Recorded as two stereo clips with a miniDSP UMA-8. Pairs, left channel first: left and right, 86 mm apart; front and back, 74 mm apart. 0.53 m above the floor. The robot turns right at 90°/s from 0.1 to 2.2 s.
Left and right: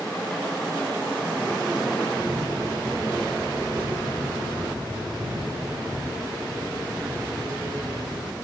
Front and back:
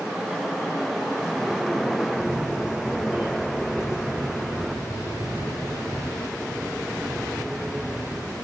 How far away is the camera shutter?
About 9.5 m.